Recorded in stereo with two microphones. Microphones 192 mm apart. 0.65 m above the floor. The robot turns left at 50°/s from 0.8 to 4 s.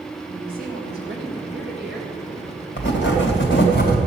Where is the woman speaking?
55° right, 3 m; by 2.1 s 120° right, 3 m.